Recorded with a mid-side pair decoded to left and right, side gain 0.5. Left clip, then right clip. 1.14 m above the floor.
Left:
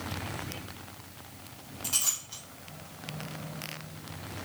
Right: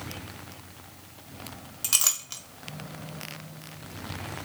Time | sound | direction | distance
1.8 | a clink | 65° right | 1.0 m